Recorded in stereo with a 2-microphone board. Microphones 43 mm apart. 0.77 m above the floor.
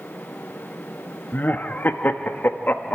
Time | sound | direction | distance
1.3 | laughter | 50° left (ahead or behind) | 0.8 m